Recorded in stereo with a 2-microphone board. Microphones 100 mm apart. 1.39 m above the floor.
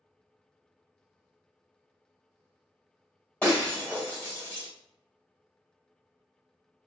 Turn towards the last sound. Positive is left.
turn(degrees=10)  # may be behind; listen again after turning